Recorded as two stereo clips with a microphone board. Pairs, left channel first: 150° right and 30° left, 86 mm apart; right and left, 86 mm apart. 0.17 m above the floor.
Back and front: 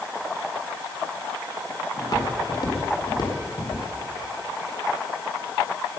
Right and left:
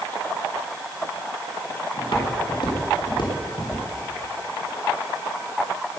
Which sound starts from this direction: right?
Footsteps, at 2.0 s.